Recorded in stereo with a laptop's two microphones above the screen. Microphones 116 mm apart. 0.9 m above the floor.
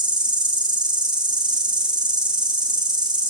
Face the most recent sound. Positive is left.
turn(degrees=-35)  # may be behind; listen again after turning